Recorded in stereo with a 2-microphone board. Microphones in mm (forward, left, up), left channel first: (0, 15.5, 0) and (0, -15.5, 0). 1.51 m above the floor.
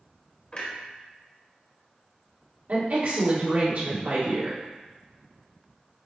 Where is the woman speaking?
80° right, 2 m.